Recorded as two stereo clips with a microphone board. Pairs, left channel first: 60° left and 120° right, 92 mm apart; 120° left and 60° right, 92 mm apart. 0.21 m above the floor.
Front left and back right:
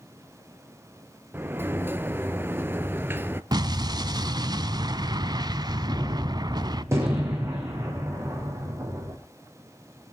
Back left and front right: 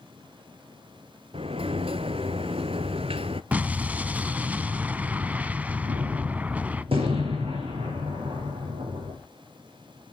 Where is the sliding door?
55° right, 0.7 m.